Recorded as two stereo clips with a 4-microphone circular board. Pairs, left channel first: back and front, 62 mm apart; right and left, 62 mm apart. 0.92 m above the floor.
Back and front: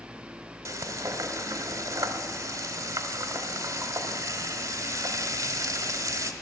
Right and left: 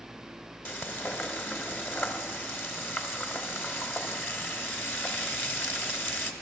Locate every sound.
0.7 s frying: 35° right, 1.5 m